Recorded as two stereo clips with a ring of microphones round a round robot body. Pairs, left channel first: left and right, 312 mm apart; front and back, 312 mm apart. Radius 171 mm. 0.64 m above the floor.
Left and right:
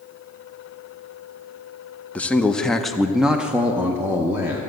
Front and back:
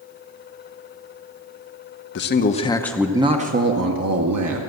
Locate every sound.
2.1 s a man speaking: 10° left, 0.8 m; by 4.6 s 170° right, 1.1 m